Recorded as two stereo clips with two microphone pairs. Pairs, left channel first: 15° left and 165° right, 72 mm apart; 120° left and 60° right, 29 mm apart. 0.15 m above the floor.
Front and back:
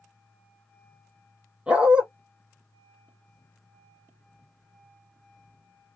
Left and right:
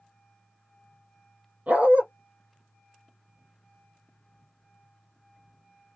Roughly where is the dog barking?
Right.